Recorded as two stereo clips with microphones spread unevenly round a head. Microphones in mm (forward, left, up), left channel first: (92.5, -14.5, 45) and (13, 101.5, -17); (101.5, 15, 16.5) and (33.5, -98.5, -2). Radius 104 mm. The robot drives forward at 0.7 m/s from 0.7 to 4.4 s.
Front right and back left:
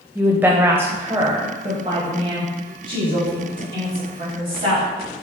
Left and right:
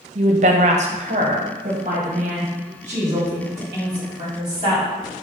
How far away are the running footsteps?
No running footsteps in this recording.